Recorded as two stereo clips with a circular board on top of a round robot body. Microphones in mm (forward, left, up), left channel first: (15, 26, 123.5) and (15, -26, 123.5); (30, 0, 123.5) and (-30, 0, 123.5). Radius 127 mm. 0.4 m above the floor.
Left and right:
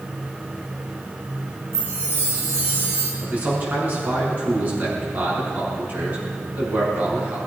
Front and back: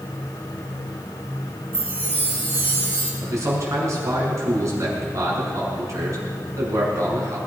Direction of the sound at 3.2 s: 145° right.